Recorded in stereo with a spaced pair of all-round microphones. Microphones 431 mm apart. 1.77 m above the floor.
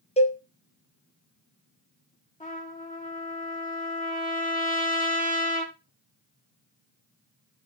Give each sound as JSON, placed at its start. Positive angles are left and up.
{"t": 0.2, "sound": "a cowbell", "side_deg": 15, "distance_m": 0.6}
{"t": 2.4, "sound": "a trumpet", "side_deg": 20, "distance_m": 1.5}